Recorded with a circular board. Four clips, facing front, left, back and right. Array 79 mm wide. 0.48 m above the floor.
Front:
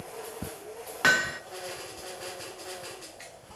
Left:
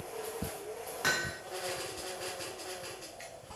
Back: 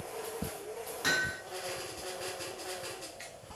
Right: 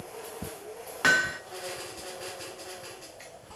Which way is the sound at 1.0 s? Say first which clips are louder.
Right 9 dB, front 8 dB; 35° right.